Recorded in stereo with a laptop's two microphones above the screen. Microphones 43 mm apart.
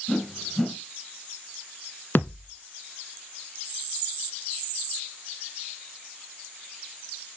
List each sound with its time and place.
0.1 s a whoosh: 15° left (ahead or behind), 3 m
2.1 s a thud: 50° left (ahead or behind), 1.7 m